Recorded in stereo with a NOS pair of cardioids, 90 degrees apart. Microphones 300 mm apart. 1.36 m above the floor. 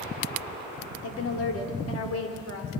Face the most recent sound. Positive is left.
turn(degrees=55)